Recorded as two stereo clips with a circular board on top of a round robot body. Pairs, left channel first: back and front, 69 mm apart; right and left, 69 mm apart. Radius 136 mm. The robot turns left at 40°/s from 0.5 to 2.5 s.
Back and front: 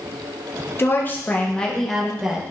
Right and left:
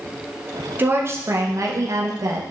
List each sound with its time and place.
0.8 s a woman speaking: 140° left, 1.6 m; by 2.4 s 75° left, 1.6 m